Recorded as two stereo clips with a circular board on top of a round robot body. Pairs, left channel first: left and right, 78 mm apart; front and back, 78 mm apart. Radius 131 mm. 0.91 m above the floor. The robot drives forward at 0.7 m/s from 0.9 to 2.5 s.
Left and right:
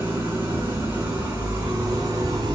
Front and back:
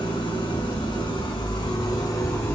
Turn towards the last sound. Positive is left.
turn(degrees=-50)